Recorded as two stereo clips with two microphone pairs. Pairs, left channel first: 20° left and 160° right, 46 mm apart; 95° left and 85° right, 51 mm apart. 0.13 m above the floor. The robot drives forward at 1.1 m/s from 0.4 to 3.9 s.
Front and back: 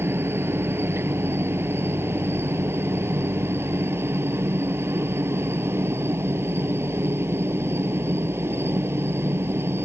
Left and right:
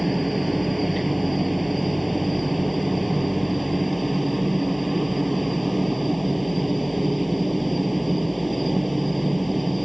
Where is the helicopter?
175° right.